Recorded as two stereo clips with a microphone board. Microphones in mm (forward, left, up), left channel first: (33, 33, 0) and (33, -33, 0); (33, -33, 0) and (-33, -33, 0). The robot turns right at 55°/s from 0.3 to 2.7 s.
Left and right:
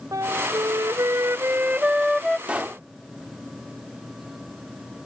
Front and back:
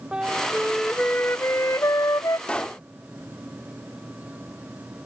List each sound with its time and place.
0.1 s a flute: 105° right; by 2.4 s 10° left
2.5 s a pop: 50° right; by 2.8 s 40° right